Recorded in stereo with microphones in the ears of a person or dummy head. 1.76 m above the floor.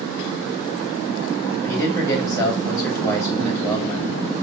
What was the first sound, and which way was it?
A man speaking, 10° left (ahead or behind).